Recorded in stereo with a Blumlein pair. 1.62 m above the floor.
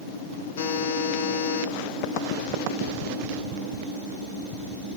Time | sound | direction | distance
0.6 | a buzzer | 60° left | 4 m